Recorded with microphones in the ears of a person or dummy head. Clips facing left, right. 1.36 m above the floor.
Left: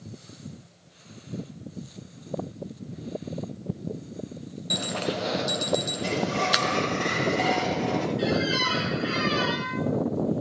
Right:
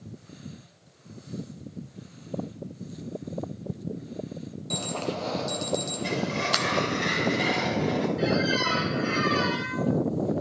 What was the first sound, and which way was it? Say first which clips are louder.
An alarm: left 2 dB; 15° left (ahead or behind).